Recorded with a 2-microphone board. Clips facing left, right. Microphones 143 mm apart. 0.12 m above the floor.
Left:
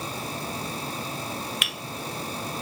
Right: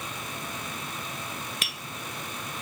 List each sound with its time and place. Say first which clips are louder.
1.6 s tapping: left 3 dB; 35° right (ahead or behind), 0.5 m